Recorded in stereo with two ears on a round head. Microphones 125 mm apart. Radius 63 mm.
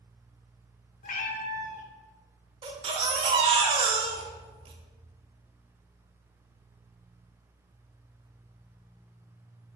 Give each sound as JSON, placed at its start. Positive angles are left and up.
{"t": 1.0, "sound": "a cat meowing", "side_deg": 55, "distance_m": 0.9}
{"t": 2.6, "sound": "a baby crying", "side_deg": -40, "distance_m": 1.0}